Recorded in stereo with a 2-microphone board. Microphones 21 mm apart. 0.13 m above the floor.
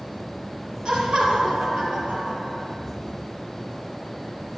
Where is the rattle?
No rattle in this recording.